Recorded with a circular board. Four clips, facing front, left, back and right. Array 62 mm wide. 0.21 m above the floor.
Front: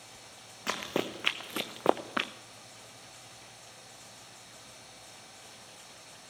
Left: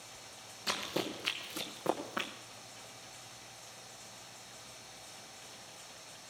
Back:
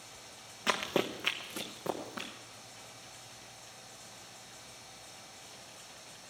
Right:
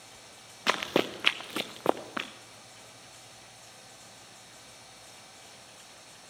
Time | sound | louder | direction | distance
0.7 | running footsteps | right 9 dB, back 1 dB | 100° right | 1.4 m